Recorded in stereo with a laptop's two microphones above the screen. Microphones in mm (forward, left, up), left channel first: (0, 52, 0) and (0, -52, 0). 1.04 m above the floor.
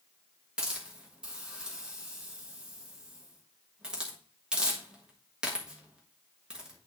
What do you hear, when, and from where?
0.6 s a hiss: 10° right (ahead or behind), 1.4 m